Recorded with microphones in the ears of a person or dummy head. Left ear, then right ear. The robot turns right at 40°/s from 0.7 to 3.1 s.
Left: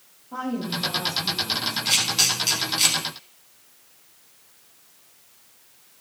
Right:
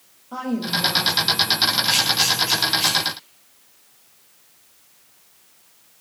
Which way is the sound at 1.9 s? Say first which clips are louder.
Right 3 dB; 5° left (ahead or behind).